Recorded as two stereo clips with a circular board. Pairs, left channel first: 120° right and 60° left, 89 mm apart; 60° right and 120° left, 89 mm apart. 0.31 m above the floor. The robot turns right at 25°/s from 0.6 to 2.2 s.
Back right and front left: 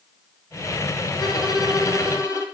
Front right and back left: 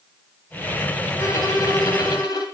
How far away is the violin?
About 1.3 m.